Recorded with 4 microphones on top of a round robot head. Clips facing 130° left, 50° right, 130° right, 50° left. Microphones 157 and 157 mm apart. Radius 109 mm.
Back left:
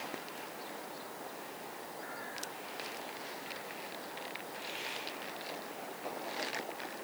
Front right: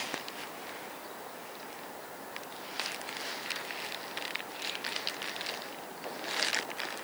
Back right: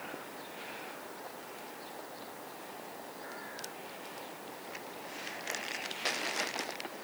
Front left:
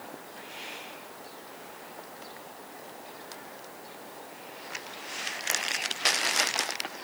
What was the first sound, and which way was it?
Only background noise.